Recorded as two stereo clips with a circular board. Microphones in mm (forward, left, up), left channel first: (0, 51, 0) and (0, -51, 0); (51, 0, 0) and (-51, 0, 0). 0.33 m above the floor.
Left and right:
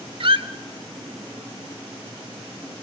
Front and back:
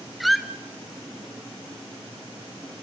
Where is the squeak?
90° right, 0.9 m.